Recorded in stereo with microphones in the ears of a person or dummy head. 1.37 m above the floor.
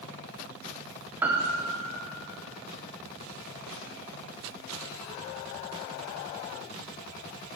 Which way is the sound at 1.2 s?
20° right (ahead or behind).